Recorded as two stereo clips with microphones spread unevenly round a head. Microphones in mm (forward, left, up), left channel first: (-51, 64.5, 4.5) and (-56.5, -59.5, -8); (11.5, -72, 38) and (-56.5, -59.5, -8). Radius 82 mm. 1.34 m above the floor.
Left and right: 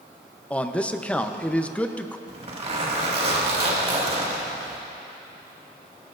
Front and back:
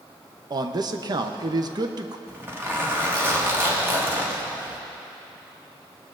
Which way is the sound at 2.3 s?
135° right.